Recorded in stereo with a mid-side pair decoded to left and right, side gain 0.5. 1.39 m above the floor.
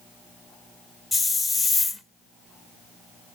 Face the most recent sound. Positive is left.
turn(degrees=15)